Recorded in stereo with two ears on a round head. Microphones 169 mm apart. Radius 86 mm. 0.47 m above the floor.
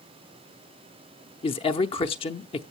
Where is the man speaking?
30° left (ahead or behind), 0.8 m.